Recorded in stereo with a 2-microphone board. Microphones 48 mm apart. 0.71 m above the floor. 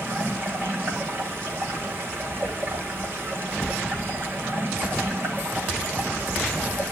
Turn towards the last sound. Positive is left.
turn(degrees=-50)  # may be behind; listen again after turning